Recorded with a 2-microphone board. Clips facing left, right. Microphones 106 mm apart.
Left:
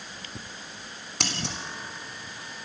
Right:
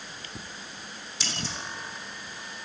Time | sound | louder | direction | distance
1.2 | scissors | left 3 dB | 65° left (ahead or behind) | 3.5 m